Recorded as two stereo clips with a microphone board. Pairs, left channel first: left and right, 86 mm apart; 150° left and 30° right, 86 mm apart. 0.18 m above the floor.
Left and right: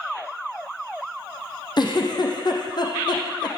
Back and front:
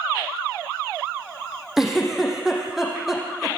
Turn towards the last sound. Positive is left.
turn(degrees=55)